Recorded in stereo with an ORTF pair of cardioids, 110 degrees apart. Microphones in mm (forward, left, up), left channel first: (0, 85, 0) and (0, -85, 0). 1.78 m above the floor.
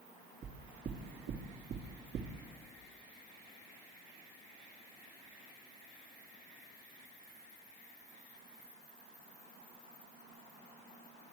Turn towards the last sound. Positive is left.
turn(degrees=-45)